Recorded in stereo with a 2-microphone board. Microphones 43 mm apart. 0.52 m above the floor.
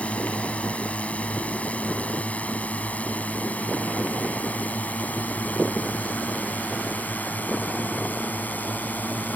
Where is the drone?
30° left (ahead or behind); by 9.4 s 40° left (ahead or behind).